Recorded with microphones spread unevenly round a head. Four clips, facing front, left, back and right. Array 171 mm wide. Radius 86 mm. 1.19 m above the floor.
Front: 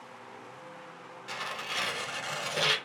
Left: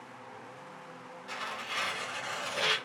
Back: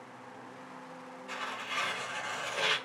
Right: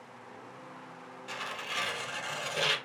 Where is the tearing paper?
30° right, 0.6 m.